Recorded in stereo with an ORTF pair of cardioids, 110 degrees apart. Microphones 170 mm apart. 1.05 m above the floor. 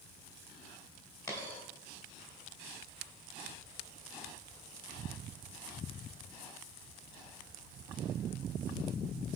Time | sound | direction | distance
1.3 | a dropped coin | 20° left | 2 m